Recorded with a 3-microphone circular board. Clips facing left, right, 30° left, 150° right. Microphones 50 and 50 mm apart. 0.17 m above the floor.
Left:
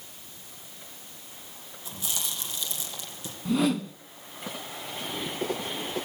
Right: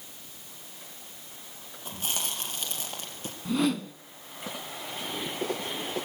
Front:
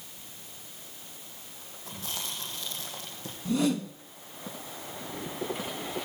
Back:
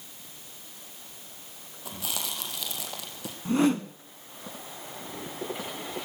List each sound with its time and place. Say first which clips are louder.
1.9 s chewing: right 2 dB, back 3 dB; 135° right, 4.5 m
3.5 s a whoosh: left 2 dB, back 3 dB; 175° left, 1.0 m